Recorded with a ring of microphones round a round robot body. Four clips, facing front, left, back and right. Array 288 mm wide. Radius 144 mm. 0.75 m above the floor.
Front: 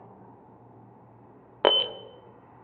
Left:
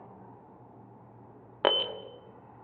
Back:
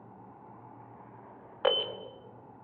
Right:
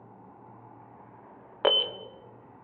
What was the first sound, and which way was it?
An alarm, 5° left.